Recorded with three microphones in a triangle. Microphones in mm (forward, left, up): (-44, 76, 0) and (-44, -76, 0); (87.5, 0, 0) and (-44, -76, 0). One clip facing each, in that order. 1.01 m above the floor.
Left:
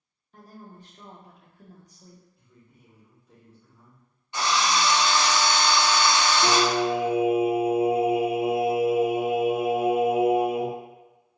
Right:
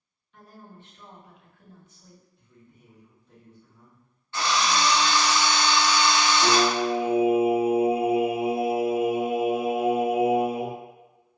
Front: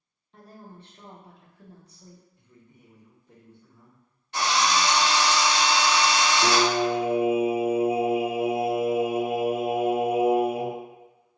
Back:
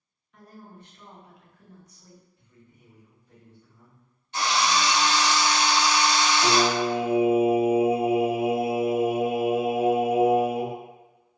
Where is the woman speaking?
70° left, 0.6 m.